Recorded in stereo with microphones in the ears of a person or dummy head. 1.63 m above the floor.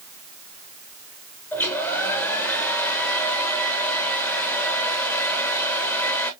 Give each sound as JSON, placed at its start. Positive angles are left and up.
{"t": 1.5, "sound": "a hair dryer", "side_deg": 10, "distance_m": 1.0}